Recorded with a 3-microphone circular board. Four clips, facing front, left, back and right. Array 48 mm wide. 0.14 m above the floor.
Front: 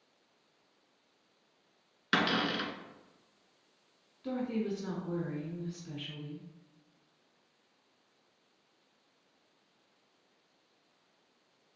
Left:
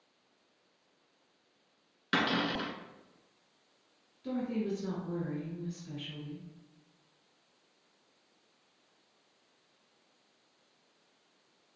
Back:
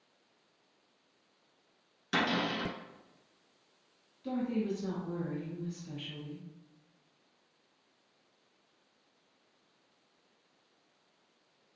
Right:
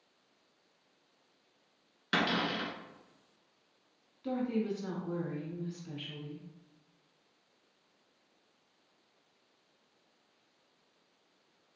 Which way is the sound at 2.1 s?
5° left.